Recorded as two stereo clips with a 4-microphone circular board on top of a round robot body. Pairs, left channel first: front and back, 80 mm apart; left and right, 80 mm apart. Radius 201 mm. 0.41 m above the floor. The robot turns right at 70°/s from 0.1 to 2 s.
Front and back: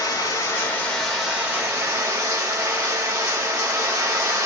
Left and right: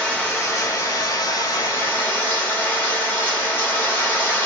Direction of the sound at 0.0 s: 20° left.